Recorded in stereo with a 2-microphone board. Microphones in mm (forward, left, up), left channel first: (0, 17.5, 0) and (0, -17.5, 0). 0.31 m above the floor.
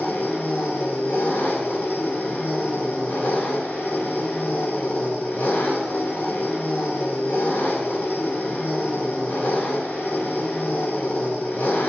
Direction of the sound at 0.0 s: 65° left (ahead or behind).